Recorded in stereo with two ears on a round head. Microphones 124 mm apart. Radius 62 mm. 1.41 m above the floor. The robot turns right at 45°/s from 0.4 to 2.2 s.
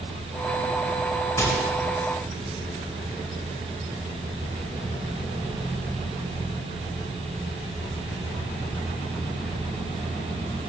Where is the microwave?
20° left (ahead or behind), 5.5 m; by 1.6 s 30° left (ahead or behind), 5.5 m.